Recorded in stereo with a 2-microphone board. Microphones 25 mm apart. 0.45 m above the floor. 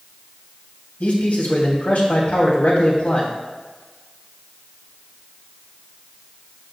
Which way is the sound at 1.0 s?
70° left (ahead or behind).